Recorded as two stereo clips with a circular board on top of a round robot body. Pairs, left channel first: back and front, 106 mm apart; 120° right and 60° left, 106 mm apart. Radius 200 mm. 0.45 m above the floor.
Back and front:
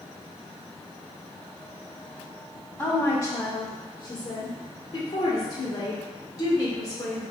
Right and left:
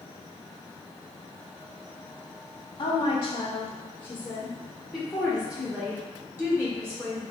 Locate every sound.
2.8 s a woman speaking: 105° right, 1.4 m; by 7.2 s 125° left, 2.5 m